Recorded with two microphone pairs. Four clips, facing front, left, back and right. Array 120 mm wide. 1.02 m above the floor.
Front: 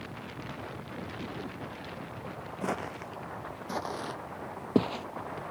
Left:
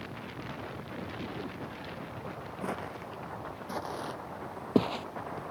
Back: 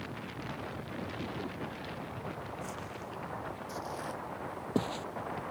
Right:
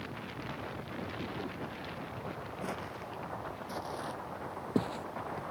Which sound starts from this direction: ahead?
Footsteps, at 2.6 s.